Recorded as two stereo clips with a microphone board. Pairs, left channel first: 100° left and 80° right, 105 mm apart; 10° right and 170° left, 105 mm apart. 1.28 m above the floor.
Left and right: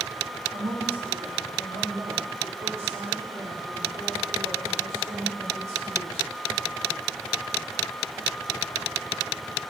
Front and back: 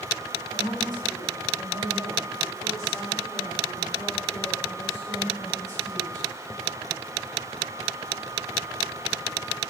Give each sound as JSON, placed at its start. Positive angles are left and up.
{"t": 0.5, "sound": "a woman speaking", "azimuth_deg": -60, "distance_m": 9.5}